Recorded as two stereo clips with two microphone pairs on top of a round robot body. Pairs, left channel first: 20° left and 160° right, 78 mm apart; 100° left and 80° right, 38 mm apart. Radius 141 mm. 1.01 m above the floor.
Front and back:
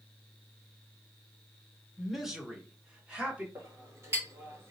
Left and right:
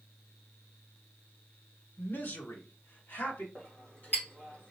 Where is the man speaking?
100° left, 1.3 m; by 3.5 s 120° left, 2 m.